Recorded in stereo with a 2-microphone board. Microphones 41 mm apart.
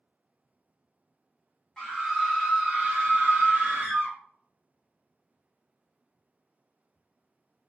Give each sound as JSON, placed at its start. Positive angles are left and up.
{"t": 1.8, "sound": "a scream", "side_deg": 15, "distance_m": 1.3}